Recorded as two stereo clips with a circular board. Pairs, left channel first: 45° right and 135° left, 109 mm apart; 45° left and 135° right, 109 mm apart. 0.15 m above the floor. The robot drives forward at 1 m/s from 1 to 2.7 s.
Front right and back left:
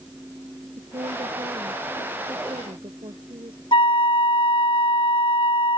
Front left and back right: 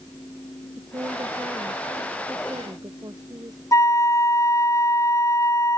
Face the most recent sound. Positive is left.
turn(degrees=-15)